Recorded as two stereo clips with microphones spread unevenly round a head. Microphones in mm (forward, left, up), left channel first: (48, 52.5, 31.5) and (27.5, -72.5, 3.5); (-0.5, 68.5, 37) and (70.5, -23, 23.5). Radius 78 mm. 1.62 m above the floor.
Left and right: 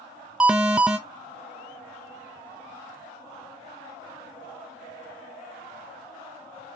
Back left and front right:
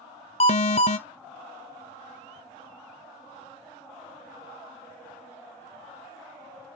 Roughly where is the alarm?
Behind.